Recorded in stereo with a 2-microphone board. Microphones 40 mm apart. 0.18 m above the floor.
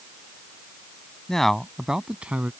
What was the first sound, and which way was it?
A man speaking, 15° left (ahead or behind).